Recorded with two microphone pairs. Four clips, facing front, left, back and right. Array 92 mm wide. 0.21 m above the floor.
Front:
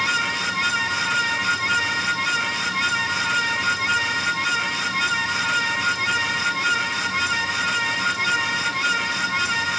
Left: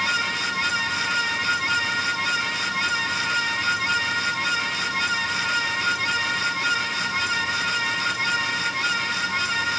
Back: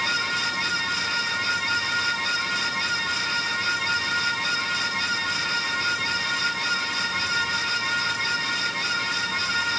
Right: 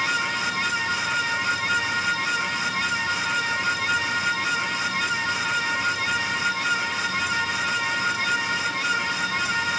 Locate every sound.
Only background noise.